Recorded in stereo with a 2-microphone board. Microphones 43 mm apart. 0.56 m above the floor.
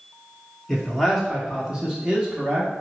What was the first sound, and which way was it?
A man speaking, 5° left (ahead or behind).